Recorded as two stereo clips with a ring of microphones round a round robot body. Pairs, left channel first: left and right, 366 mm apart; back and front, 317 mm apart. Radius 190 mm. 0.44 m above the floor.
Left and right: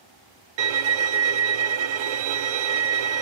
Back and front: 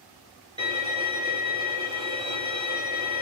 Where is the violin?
75° right, 0.7 m.